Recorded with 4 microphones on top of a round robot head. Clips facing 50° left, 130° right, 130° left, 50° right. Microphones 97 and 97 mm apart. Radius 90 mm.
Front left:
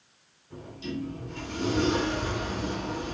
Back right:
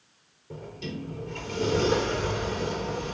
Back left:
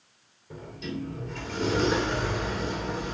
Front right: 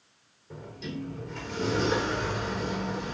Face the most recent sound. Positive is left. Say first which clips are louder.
# front left 1 dB, back left 2 dB
turn(degrees=-145)